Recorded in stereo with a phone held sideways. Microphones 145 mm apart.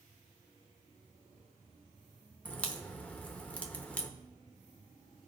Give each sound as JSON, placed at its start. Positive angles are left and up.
{"t": 2.5, "sound": "a crack", "side_deg": 10, "distance_m": 0.9}